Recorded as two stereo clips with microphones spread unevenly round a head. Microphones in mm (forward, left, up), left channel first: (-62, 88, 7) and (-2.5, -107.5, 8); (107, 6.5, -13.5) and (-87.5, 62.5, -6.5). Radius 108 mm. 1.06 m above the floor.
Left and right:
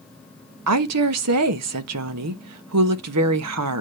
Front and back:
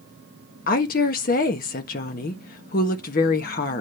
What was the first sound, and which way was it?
A woman speaking, 70° right.